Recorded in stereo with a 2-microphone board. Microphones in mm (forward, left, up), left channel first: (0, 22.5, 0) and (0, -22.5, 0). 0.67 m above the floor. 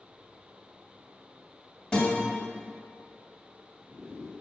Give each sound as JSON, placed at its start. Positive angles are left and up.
{"t": 1.9, "sound": "a guitar", "side_deg": 20, "distance_m": 1.5}